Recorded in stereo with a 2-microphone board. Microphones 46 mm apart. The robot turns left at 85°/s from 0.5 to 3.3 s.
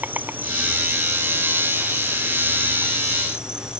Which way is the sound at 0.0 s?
140° right.